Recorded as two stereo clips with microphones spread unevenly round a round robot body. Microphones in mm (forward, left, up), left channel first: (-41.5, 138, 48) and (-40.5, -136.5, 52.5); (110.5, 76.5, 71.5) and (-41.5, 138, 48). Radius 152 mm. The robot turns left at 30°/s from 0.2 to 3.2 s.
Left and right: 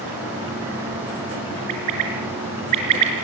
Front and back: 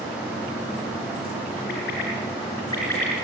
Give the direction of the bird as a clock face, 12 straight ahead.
2 o'clock.